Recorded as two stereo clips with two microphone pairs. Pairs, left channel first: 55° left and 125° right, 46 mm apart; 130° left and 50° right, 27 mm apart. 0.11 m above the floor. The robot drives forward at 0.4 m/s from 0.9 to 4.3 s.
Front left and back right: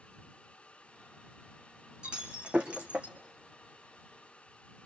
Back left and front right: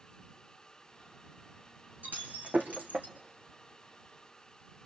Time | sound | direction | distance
2.0 | breaking glass | 55° right | 3 m